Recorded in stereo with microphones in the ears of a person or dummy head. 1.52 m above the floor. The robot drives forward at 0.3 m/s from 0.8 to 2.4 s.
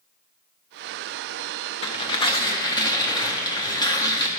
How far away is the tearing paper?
About 0.5 m.